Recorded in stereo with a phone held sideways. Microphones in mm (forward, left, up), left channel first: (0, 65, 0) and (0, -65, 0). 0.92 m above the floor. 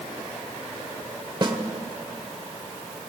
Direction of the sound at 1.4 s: 35° right (ahead or behind).